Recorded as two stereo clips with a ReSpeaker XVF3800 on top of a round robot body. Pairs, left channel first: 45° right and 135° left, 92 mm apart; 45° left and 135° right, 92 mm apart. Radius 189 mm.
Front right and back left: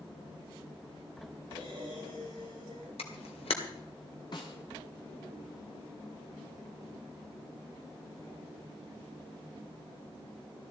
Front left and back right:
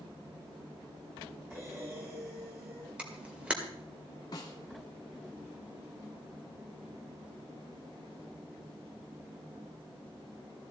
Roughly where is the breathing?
Behind.